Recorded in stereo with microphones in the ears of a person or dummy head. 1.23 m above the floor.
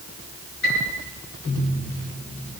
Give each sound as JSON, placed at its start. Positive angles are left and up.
{"t": 0.6, "sound": "a piano", "side_deg": 70, "distance_m": 8.5}